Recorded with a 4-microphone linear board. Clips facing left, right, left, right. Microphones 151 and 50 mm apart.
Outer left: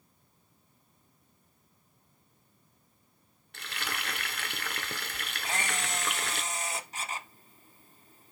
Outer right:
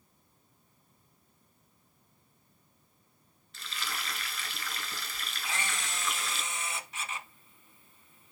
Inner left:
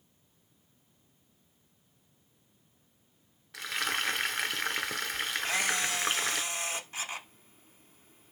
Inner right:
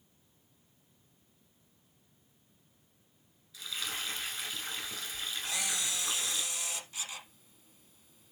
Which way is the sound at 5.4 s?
40° left (ahead or behind).